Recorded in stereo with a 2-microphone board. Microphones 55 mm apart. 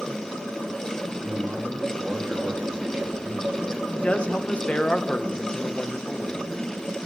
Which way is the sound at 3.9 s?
20° left (ahead or behind).